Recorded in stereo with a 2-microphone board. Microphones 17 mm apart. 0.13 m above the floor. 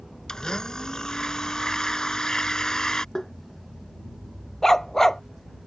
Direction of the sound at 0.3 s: 35° left (ahead or behind).